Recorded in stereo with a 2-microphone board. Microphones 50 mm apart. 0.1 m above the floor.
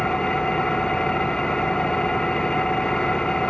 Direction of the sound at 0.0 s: 15° left (ahead or behind).